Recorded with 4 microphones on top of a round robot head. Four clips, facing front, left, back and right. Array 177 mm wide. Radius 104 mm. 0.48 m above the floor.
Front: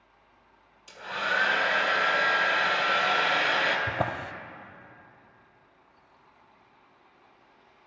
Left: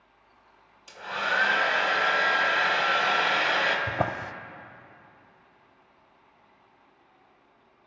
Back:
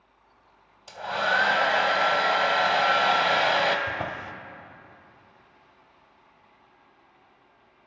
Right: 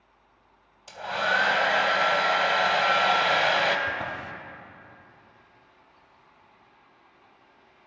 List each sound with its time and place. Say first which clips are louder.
0.9 s a hair dryer: right 3 dB, back 5 dB; 140° right, 1.4 m
3.9 s a drawer: left 3 dB, front 2 dB; 60° left, 0.8 m